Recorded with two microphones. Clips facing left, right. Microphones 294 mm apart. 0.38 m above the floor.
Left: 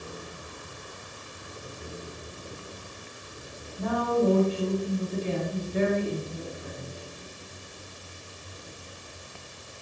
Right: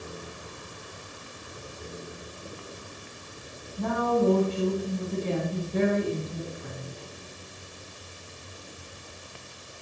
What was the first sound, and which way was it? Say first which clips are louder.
A woman speaking: even; 60° right (ahead or behind).